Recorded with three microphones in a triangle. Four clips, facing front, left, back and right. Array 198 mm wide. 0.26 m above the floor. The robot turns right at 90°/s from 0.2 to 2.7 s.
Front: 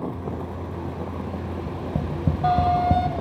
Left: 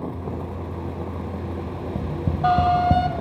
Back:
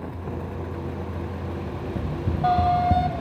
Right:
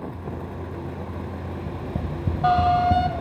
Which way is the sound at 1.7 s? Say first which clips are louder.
Left 2 dB, front 3 dB; 35° right.